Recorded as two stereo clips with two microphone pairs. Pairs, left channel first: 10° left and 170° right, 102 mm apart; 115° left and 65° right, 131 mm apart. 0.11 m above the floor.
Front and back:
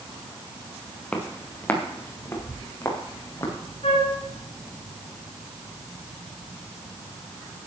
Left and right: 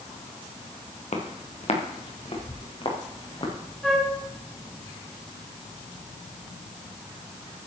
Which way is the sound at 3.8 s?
30° left.